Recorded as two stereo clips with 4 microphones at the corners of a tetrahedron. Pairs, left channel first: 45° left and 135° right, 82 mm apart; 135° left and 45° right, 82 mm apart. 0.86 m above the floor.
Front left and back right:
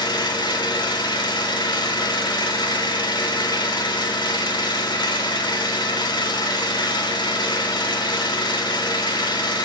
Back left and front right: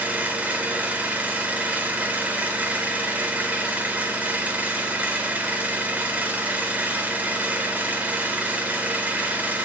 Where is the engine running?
25° left, 1.1 m.